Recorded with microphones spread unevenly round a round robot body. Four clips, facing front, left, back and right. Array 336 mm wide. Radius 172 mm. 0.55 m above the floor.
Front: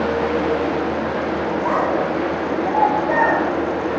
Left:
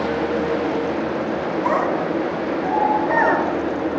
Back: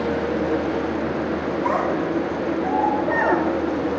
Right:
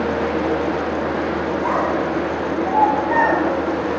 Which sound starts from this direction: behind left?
A child speaking, at 1.6 s.